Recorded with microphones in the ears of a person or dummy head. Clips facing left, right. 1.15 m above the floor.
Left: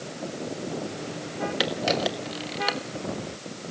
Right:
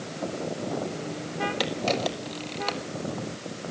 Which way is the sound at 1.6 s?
10° left (ahead or behind).